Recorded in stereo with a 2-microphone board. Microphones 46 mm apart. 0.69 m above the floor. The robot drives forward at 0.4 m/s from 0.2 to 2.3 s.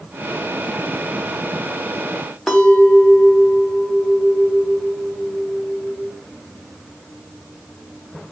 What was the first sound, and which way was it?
A clink, 5° left (ahead or behind).